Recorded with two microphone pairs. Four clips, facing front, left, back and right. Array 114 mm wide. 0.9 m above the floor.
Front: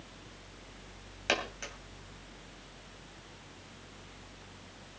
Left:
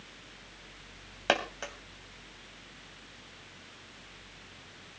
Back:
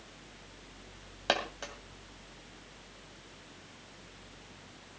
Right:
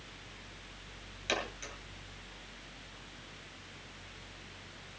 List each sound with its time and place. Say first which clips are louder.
1.3 s a dropped coin: left 7 dB, back 2 dB; 115° left, 2.5 m